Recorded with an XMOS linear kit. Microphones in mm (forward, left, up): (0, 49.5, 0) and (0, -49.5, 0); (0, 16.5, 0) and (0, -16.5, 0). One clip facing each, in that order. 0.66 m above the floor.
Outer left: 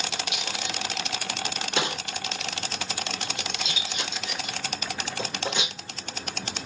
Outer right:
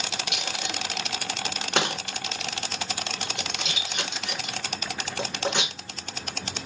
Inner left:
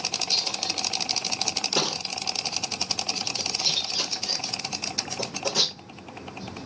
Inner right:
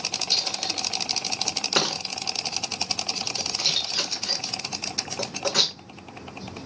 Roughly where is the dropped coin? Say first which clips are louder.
Even, inner right 2 dB; right.